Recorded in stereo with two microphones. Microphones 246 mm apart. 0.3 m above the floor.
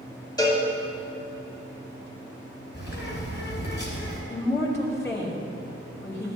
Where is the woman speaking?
10° left (ahead or behind), 1.5 m.